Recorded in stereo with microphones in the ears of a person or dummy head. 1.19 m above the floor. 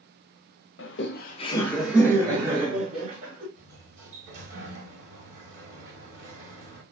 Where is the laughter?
65° left (ahead or behind), 0.7 m; by 3.5 s 30° right (ahead or behind), 1.8 m.